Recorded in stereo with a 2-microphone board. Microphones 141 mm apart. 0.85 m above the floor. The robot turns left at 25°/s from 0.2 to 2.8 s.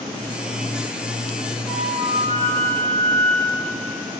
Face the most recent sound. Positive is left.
turn(degrees=40)  # may be behind; listen again after turning